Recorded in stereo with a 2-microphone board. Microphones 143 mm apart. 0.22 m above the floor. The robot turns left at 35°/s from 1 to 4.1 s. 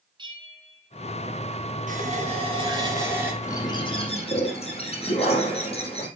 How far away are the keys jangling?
I don't hear keys jangling.